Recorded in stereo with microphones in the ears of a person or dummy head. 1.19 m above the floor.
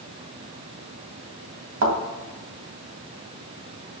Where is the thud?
70° right (ahead or behind), 2.5 m.